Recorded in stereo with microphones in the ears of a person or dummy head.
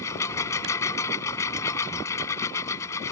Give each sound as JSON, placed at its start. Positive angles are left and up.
{"t": 0.0, "sound": "a lawn mower", "side_deg": 15}